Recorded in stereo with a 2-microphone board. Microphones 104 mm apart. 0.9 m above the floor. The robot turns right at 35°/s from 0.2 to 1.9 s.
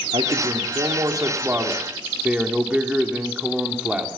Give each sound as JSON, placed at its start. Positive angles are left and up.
{"t": 0.1, "sound": "a man speaking", "azimuth_deg": -70, "distance_m": 3.0}